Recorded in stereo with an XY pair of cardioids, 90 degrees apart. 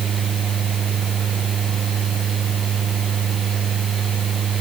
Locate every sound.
0.0 s a fan: 60° right